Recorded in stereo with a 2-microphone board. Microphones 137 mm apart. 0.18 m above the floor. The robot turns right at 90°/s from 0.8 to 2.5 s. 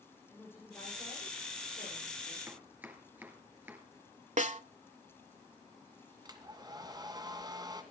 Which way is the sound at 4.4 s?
60° right (ahead or behind).